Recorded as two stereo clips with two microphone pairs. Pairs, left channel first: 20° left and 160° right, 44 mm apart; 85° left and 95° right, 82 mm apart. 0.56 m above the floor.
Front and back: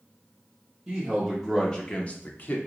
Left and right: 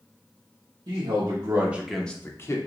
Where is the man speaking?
80° right, 1.0 m; by 2.6 s 50° left, 0.8 m.